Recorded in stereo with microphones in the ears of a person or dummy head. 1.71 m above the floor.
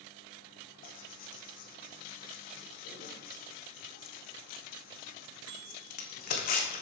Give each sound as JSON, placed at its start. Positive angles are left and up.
{"t": 0.8, "sound": "tearing paper", "side_deg": 45, "distance_m": 1.4}